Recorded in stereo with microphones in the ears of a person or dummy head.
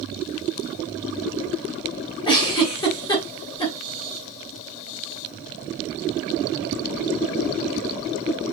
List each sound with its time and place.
2.2 s a giggle: 25° left (ahead or behind), 1.7 m